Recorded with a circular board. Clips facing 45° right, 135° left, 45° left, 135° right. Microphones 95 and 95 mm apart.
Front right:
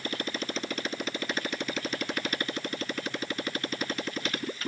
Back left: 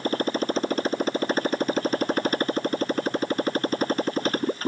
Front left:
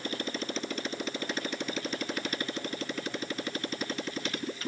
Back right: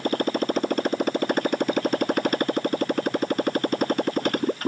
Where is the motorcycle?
175° right.